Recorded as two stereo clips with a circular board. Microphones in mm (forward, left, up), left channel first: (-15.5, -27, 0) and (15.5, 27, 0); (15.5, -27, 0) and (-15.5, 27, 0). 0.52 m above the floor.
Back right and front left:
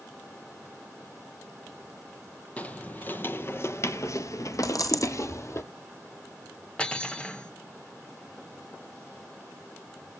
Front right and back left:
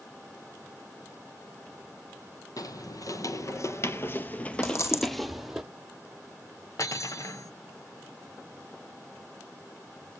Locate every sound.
2.6 s footsteps: 55° right, 1.2 m; by 5.6 s 160° right, 1.1 m
4.6 s a dropped coin: 100° right, 1.7 m
6.8 s cutlery clinking: 50° right, 0.9 m